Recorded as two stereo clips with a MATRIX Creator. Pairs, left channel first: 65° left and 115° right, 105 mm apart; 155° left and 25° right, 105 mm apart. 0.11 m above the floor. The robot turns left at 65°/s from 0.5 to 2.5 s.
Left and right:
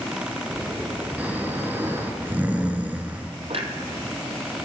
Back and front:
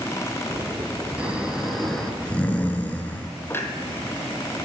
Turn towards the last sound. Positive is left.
turn(degrees=-135)